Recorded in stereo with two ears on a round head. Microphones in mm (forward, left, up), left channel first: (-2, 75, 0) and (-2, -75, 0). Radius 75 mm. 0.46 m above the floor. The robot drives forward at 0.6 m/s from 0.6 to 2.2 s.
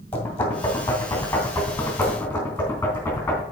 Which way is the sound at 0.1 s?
15° left (ahead or behind).